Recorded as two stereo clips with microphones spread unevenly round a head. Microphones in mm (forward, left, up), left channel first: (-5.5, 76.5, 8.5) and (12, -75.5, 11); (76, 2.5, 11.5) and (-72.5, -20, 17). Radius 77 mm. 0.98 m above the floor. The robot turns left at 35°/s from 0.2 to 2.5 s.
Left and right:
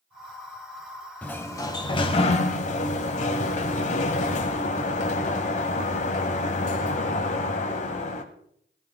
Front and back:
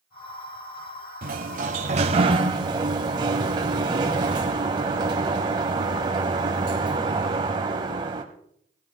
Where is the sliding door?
175° left, 1.2 m; by 8.2 s 130° left, 1.2 m.